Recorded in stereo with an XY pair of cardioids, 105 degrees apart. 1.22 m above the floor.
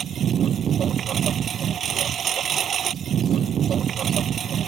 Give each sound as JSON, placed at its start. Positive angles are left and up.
{"t": 0.0, "sound": "a lawn mower", "azimuth_deg": -55}